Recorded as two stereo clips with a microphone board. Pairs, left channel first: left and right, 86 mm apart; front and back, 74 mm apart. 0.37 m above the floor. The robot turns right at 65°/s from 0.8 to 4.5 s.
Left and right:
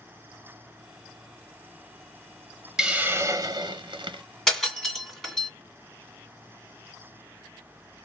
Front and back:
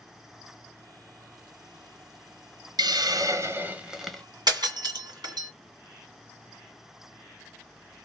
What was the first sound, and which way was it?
A hiss, 175° right.